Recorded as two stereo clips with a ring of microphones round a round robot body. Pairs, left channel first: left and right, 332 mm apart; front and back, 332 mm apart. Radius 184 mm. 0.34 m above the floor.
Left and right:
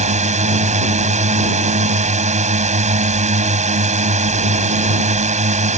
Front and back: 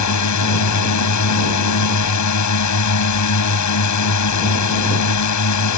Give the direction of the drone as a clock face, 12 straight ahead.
1 o'clock.